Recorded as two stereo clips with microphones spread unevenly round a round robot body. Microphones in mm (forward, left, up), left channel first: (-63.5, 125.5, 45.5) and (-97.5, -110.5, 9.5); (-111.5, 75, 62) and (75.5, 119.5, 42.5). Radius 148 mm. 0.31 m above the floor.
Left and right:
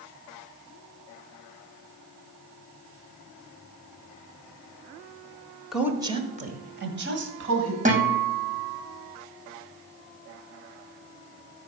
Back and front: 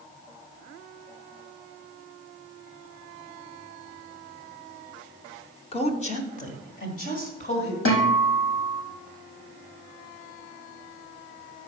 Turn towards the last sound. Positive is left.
turn(degrees=-160)